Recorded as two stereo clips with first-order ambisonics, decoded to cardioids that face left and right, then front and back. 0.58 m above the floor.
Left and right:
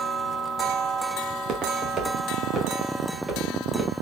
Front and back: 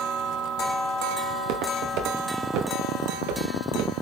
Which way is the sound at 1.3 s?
150° right.